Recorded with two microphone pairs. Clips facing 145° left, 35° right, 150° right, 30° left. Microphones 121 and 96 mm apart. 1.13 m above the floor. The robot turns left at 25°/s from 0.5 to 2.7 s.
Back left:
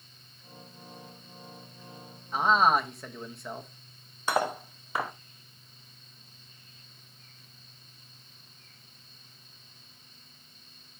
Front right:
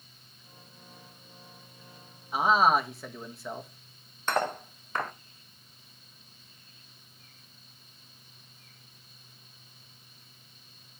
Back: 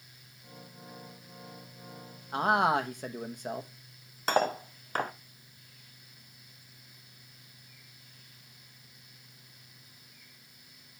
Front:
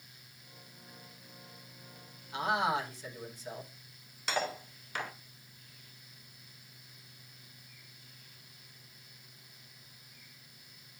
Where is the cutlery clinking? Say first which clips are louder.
Back left 1 dB, back 7 dB; 135° right, 0.5 m.